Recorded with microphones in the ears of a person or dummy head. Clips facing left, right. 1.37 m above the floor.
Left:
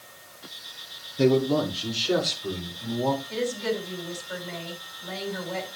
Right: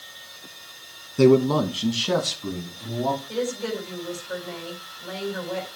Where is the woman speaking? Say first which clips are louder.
Right 1 dB; 55° right (ahead or behind), 7 m.